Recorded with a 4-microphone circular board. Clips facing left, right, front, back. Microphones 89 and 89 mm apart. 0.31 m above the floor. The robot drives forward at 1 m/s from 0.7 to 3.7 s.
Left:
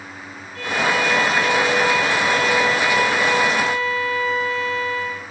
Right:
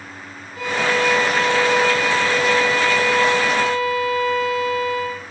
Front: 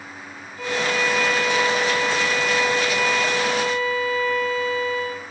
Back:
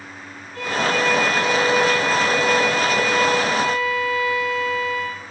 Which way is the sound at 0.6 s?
170° right.